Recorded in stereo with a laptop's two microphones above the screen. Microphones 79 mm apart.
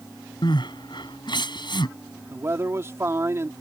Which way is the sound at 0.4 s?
75° left (ahead or behind).